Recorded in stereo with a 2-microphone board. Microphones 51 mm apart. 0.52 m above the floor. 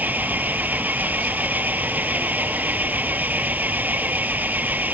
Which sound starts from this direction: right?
An engine running, at 0.0 s.